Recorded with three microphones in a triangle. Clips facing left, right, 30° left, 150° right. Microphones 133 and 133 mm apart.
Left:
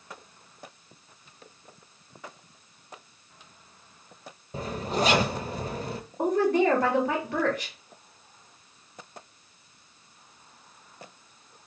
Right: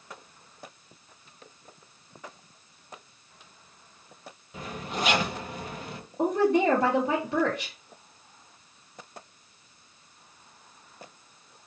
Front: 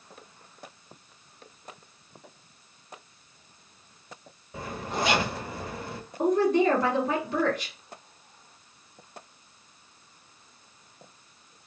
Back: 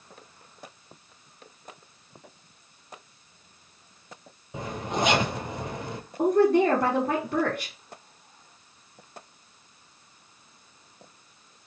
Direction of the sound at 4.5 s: 140° left.